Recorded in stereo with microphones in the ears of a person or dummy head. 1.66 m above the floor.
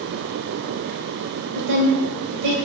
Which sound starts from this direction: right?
A woman speaking, at 1.6 s.